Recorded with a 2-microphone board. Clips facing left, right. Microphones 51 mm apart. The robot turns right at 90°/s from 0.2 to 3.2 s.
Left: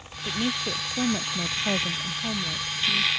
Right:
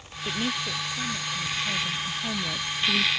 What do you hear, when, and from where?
0.2 s a woman speaking: 10° right; by 3.1 s 115° right